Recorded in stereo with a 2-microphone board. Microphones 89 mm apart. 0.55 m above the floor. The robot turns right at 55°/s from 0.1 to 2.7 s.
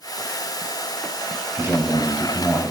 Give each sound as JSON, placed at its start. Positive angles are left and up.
{"t": 1.6, "sound": "a man speaking", "azimuth_deg": -35, "distance_m": 3.0}